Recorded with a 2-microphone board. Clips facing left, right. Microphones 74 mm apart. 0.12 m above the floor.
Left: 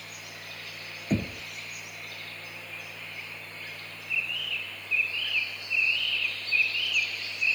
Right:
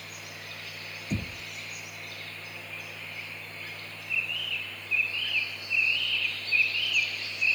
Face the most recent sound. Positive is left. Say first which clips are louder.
# left 6 dB
turn(degrees=40)  # may be behind; listen again after turning